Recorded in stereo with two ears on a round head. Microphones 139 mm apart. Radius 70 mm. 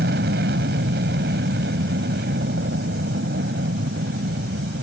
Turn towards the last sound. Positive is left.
turn(degrees=-65)  # may be behind; listen again after turning